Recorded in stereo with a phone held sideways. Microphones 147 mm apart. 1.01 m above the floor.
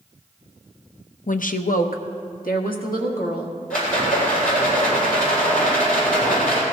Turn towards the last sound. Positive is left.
turn(degrees=75)  # may be behind; listen again after turning